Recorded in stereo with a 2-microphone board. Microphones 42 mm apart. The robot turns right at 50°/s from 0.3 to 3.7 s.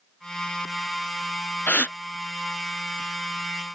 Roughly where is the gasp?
Left.